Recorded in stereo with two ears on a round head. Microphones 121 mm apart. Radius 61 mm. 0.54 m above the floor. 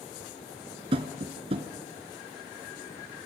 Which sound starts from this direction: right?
Tapping, at 0.9 s.